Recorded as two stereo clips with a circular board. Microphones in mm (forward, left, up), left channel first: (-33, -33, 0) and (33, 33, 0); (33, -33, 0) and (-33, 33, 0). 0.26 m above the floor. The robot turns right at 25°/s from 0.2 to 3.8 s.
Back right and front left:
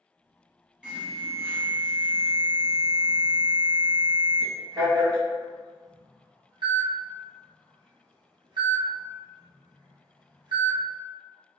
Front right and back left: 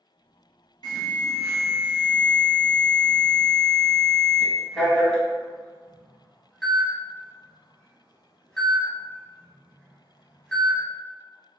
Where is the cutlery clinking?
No cutlery clinking in this recording.